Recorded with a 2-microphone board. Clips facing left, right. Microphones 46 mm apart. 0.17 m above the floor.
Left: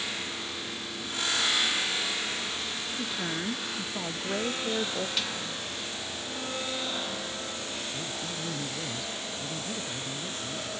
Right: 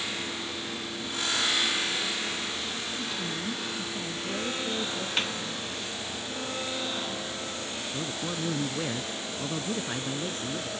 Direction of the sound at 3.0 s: 30° left (ahead or behind).